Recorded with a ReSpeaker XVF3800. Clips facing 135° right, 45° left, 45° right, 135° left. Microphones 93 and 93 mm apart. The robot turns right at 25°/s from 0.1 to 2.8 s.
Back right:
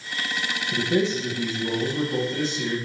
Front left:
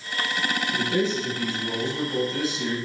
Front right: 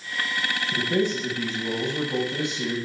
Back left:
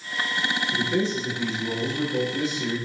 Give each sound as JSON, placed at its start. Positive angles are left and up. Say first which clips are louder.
{"t": 0.7, "sound": "a man speaking", "louder": "back right 4 dB, front right 2 dB", "azimuth_deg": -85, "distance_m": 4.5}